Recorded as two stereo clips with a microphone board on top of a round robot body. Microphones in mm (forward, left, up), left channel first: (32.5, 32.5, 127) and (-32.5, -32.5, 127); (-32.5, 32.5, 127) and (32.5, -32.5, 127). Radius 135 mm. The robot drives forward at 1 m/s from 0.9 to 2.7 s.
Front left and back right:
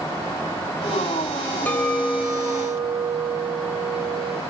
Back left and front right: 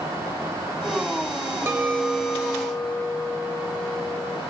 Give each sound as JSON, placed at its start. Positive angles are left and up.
{"t": 1.7, "sound": "a clink", "azimuth_deg": -10, "distance_m": 0.9}